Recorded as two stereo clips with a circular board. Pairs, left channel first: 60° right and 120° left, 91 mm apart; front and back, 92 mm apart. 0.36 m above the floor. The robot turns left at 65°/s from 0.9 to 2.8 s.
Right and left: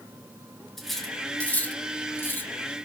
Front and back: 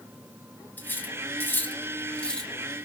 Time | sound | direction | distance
0.8 | cutlery clinking | 25° left | 0.6 m